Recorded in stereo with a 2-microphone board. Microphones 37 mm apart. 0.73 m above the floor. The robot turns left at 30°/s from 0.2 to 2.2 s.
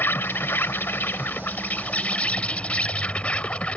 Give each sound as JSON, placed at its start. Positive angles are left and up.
{"t": 0.0, "sound": "an insect", "azimuth_deg": 100}